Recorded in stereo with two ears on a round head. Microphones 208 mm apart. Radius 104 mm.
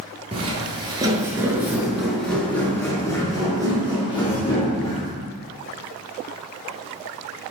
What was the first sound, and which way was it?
Footsteps, 25° right (ahead or behind).